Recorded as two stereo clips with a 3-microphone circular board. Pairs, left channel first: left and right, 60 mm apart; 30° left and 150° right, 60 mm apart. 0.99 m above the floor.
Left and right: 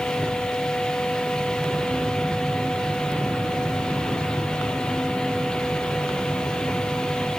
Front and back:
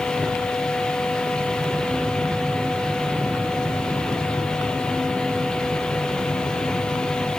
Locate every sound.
Only background noise.